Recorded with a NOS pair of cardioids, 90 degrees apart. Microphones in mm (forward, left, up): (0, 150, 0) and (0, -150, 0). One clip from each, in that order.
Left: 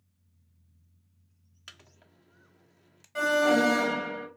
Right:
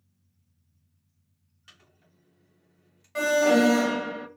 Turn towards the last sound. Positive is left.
turn(degrees=-20)